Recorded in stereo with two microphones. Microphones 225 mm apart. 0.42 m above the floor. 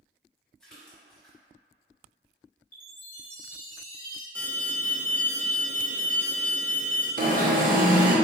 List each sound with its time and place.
0.6 s a splash: 5° left (ahead or behind), 1.1 m
2.7 s a chime: 40° left (ahead or behind), 0.8 m
4.3 s an alarm: 10° left (ahead or behind), 0.7 m
7.2 s an alarm: 40° right (ahead or behind), 0.5 m